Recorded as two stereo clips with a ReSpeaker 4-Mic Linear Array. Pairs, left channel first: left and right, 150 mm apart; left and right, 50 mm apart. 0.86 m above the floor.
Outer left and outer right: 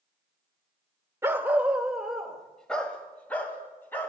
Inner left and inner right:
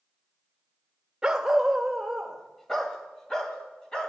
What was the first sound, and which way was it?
A dog barking, 20° right (ahead or behind).